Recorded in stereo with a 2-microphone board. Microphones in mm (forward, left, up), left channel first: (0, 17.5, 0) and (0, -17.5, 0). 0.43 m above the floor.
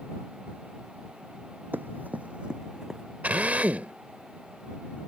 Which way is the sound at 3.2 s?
45° right (ahead or behind).